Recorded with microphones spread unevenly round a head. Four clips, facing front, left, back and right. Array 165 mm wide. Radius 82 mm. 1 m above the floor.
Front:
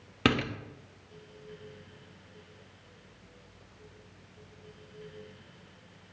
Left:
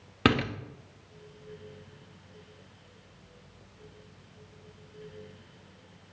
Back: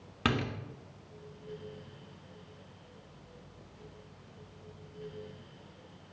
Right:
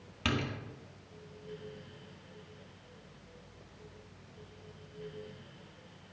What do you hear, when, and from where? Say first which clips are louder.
0.2 s a door slam: left 9 dB, front 4 dB; 60° left, 1.1 m